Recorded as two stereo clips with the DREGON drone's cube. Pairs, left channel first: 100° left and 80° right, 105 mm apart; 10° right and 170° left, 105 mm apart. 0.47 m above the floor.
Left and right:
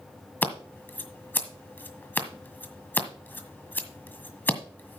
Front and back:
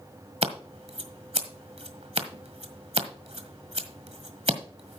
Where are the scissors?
170° left, 1.5 m.